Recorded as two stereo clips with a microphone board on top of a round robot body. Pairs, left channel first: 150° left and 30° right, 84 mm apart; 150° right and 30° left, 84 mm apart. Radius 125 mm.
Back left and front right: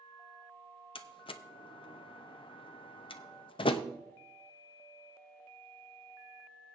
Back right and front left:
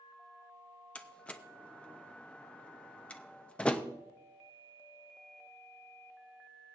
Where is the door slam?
135° left, 0.6 m.